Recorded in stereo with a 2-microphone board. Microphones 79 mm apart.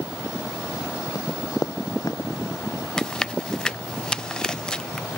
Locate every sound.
1.1 s running footsteps: 50° left (ahead or behind)
3.0 s chewing: 5° left (ahead or behind)